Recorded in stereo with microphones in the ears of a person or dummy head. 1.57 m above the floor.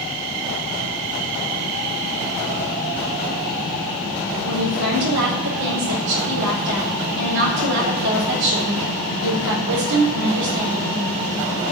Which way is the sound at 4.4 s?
80° right.